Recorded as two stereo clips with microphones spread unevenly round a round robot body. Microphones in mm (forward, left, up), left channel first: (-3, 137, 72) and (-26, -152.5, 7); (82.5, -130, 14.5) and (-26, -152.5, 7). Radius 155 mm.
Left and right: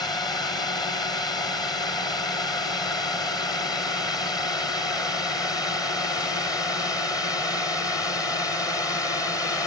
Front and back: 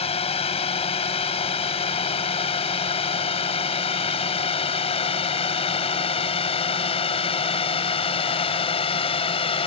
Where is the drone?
5° left; by 9.7 s straight ahead.